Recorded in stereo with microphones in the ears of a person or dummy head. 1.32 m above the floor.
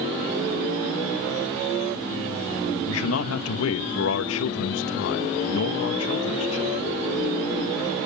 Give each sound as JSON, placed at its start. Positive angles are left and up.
{"t": 2.9, "sound": "a man speaking", "side_deg": 70, "distance_m": 2.0}